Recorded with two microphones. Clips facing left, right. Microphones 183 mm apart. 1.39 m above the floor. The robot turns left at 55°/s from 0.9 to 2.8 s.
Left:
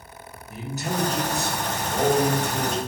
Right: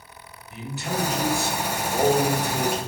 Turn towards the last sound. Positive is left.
turn(degrees=-60)